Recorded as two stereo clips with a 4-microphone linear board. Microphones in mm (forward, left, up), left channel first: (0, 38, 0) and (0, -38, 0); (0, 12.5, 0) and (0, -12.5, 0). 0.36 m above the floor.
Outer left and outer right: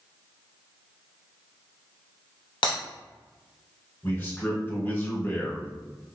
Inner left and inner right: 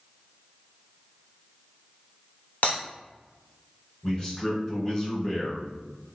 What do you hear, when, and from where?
2.6 s breaking glass: 85° left, 1.4 m
4.0 s a man speaking: 25° left (ahead or behind), 1.7 m